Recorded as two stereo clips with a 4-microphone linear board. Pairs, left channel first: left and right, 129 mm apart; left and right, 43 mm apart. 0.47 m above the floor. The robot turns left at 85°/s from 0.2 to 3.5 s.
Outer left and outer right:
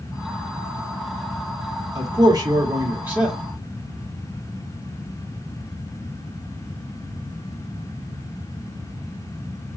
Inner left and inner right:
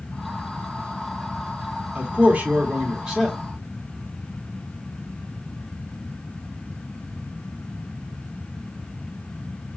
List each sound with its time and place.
1.9 s a man speaking: 25° right (ahead or behind), 1.2 m; by 3.4 s centre (ahead or behind), 1.2 m